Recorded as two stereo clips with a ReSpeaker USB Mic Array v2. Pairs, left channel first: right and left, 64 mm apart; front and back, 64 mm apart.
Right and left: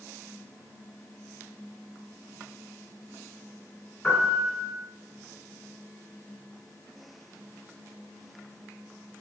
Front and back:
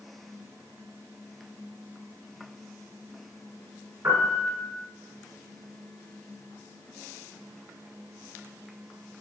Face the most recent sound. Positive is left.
turn(degrees=-160)